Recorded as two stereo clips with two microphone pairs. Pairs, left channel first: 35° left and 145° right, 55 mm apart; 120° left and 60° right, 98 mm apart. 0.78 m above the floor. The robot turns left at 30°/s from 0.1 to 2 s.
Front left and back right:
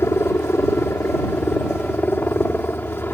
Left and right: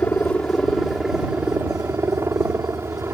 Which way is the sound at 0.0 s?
55° left.